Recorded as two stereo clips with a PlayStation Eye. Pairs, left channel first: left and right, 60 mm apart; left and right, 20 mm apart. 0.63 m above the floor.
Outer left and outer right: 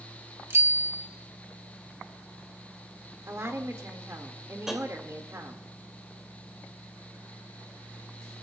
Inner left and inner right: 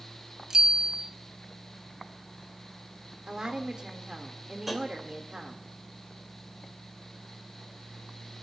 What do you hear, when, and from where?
0.5 s a bicycle bell: 45° right (ahead or behind), 2.5 m
3.3 s a woman speaking: 50° right (ahead or behind), 1.8 m
4.7 s tapping: 5° right (ahead or behind), 2.5 m